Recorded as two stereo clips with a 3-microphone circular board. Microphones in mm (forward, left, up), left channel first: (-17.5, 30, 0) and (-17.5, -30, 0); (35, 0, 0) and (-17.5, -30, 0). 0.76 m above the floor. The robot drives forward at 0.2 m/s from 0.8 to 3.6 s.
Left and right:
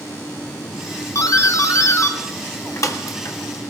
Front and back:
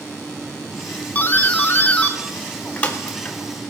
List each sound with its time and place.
1.1 s a doorbell: 85° left, 1.7 m; by 3.4 s 105° left, 1.8 m